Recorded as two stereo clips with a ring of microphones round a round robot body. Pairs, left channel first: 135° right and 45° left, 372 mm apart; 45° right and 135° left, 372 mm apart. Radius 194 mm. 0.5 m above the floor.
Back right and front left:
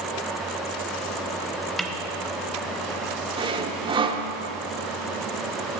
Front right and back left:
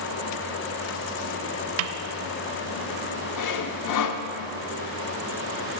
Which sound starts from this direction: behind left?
A snare drum, at 1.8 s.